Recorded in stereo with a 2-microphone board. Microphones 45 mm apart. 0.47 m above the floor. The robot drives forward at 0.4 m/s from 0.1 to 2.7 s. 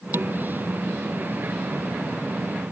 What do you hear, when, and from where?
0.1 s dishes clattering: 50° right (ahead or behind)